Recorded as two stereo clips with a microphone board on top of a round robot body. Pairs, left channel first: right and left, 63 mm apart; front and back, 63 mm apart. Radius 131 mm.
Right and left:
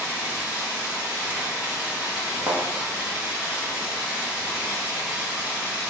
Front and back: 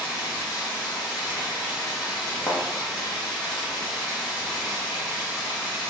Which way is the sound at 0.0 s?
15° left.